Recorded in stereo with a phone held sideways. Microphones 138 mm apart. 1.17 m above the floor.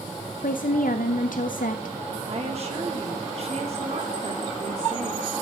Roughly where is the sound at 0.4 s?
Left.